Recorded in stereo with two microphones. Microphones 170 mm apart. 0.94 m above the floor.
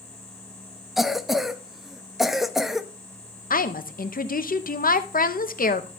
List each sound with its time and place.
1.0 s a cough: centre (ahead or behind), 0.8 m
3.5 s a woman speaking: 55° left (ahead or behind), 0.7 m